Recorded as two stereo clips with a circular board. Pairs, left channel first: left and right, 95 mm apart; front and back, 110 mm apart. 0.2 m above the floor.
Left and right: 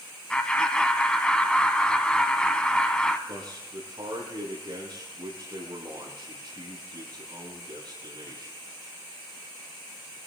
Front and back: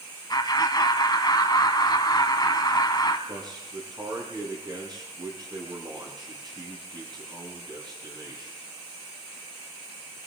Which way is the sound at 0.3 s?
15° left.